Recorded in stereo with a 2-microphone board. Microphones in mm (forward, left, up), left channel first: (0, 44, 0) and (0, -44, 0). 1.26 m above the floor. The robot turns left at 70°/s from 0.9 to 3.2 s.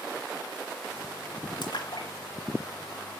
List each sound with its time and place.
1.6 s a splash: 65° left (ahead or behind), 3 m; by 2.1 s 40° left (ahead or behind), 3 m